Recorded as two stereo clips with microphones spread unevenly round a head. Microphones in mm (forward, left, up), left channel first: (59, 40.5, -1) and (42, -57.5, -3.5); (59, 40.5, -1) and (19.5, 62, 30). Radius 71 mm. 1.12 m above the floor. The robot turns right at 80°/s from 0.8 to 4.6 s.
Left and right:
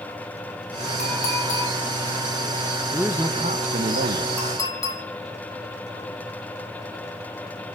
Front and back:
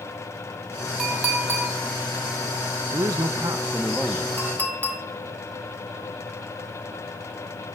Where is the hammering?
I don't hear hammering.